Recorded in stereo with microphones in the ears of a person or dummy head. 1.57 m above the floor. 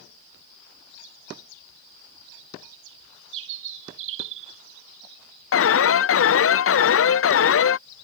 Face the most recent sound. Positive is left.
turn(degrees=55)  # may be behind; listen again after turning